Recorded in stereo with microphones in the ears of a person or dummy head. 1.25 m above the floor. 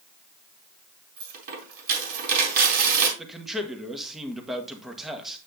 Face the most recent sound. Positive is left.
turn(degrees=0)  # may be behind; listen again after turning